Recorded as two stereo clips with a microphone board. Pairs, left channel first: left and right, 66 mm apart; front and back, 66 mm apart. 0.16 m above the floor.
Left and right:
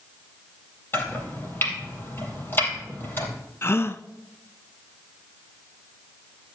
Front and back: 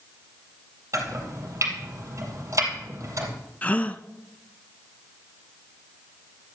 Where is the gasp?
60° left, 0.6 m.